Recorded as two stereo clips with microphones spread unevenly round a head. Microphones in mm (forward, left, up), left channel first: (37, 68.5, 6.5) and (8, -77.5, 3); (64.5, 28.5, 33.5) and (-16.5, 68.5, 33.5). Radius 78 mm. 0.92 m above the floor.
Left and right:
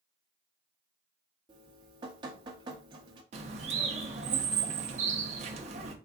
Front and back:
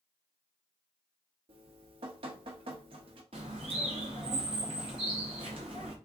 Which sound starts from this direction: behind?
Dripping, at 1.5 s.